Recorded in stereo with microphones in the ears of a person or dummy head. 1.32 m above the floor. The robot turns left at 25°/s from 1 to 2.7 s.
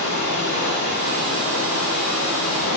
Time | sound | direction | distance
0.0 | running water | 120° left | 1.4 m